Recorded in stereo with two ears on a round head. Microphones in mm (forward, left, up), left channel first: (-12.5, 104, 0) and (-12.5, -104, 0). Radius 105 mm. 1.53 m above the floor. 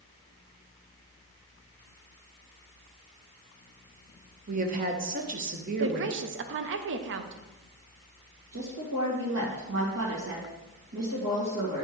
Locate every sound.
4.5 s a woman speaking: 35° right (ahead or behind), 0.8 m
5.8 s a woman speaking: 55° right (ahead or behind), 0.6 m
8.5 s a woman speaking: 65° right (ahead or behind), 1.9 m